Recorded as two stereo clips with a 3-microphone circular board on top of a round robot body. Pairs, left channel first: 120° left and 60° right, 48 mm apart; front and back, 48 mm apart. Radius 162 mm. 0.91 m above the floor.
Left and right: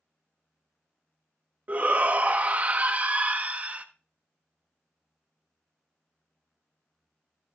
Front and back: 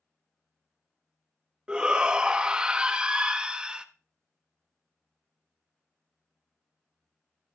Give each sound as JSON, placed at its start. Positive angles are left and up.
{"t": 1.7, "sound": "a shout", "azimuth_deg": -110, "distance_m": 1.3}